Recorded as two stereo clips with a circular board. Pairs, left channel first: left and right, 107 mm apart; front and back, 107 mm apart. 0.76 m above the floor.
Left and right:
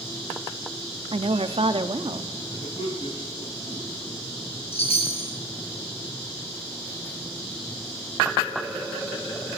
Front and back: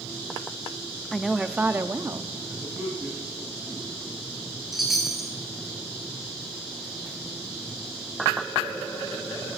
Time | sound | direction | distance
1.1 | a woman speaking | 85° right | 0.8 m
2.5 | a man speaking | 110° left | 9 m
4.7 | a chime | 90° left | 3 m